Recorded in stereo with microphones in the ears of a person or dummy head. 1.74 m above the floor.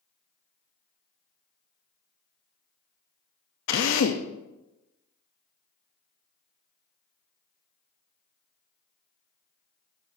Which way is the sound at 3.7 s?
70° left (ahead or behind).